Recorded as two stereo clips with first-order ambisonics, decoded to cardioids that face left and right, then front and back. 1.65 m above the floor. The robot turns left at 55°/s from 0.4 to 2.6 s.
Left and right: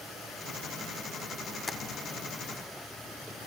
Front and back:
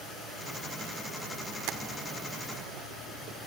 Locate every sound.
1.7 s tapping: 165° left, 0.5 m; by 1.8 s 160° left, 0.5 m